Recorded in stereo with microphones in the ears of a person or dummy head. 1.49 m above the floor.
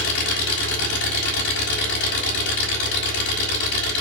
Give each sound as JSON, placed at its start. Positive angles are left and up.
{"t": 0.0, "sound": "an engine running", "side_deg": 70, "distance_m": 4.0}